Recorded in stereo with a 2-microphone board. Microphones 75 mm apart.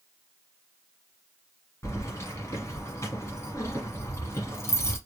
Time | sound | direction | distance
1.8 | keys jangling | 40° left (ahead or behind) | 1.2 m